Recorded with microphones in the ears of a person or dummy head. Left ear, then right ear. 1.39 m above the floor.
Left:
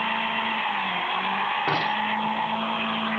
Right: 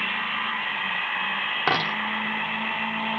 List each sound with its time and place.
1.7 s a dropped coin: 55° right (ahead or behind), 1.5 m